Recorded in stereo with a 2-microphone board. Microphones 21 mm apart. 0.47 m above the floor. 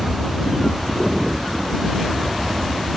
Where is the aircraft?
15° left (ahead or behind); by 3.0 s 5° left (ahead or behind).